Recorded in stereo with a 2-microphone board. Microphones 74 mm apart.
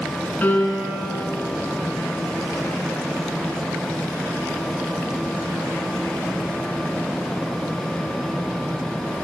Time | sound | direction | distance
0.4 | a piano | 25° left (ahead or behind) | 1.5 m